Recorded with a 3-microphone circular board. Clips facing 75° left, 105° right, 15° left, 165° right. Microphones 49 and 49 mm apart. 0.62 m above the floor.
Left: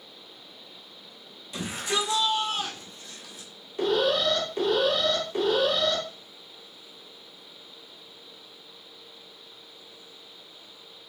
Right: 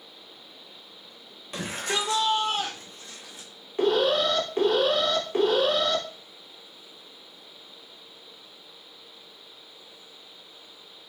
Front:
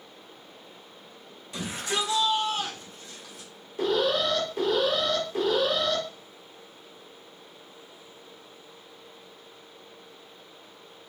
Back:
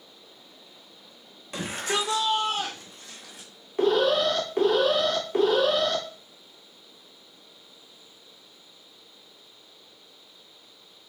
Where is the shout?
135° right, 1.8 m; by 3.5 s 160° right, 2.5 m.